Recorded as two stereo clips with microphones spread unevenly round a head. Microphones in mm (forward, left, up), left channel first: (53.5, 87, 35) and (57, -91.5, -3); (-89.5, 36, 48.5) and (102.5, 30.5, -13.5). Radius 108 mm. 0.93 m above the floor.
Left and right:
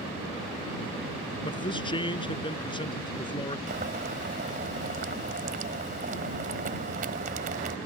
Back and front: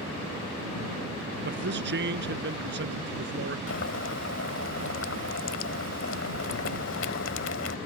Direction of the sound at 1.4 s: 30° left.